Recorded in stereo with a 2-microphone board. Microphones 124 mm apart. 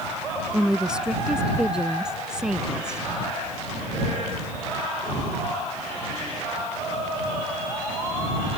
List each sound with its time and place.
0.5 s a woman speaking: 5° right (ahead or behind)